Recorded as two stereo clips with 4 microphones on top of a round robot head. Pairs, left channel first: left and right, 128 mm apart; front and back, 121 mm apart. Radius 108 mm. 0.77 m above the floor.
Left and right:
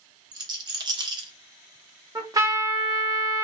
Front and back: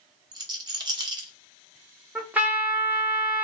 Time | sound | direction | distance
0.3 | a rattle | 135° right | 0.7 m
2.1 | a trumpet | 115° right | 0.8 m